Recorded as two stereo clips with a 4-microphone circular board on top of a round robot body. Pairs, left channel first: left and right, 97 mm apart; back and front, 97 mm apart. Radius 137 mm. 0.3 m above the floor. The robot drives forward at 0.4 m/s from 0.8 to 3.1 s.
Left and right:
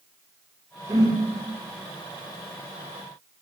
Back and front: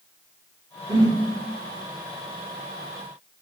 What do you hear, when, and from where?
0.9 s a whoosh: 30° right, 0.7 m; by 1.2 s 35° right, 0.6 m